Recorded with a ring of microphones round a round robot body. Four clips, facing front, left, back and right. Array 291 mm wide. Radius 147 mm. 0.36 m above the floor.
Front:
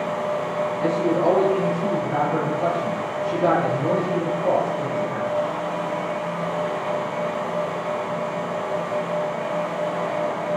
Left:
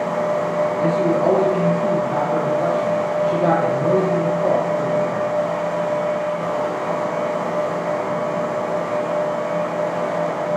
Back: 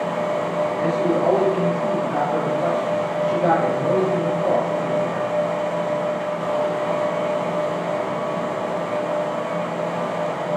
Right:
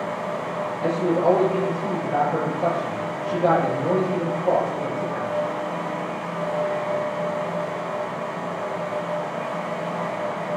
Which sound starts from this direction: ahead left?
A man speaking, at 0.8 s.